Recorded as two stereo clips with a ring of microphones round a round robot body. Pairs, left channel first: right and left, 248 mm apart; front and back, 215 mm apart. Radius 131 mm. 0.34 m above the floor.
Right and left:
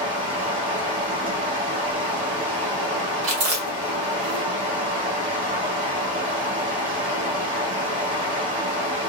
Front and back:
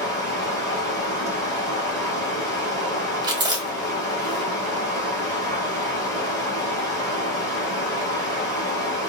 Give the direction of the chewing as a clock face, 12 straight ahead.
8 o'clock.